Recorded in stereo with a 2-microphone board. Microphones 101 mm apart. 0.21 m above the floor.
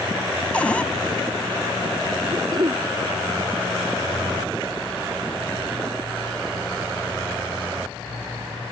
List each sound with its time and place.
0.5 s a cupboard door: 15° left (ahead or behind)
2.3 s throat clearing: 40° right (ahead or behind)